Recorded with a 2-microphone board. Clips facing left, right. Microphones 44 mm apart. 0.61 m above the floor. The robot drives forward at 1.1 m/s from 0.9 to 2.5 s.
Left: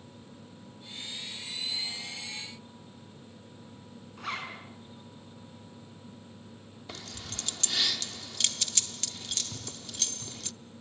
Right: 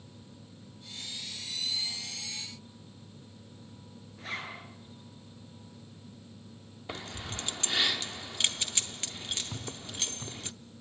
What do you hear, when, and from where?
4.2 s a zipper: 80° left, 7 m
6.9 s keys jangling: 25° right (ahead or behind), 0.6 m
9.5 s footsteps: 20° right (ahead or behind), 8.5 m